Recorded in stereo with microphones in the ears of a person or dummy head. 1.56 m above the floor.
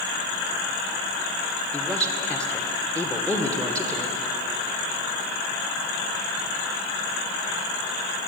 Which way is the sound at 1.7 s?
10° left (ahead or behind).